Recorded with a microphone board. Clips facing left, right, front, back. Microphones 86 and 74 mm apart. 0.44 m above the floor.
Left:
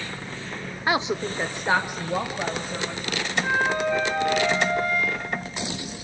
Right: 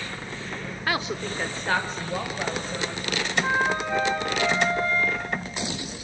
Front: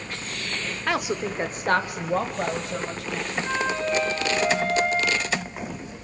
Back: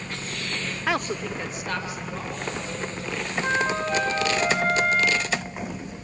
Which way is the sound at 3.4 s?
155° right.